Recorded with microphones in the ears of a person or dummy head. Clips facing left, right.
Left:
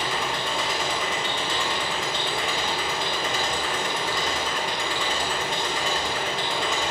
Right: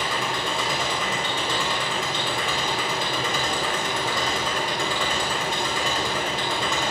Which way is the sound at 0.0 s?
70° right (ahead or behind).